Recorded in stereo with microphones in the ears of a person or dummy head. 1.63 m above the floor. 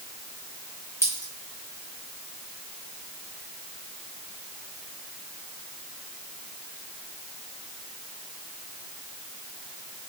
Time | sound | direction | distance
1.0 | a dropped coin | 15° left (ahead or behind) | 3 m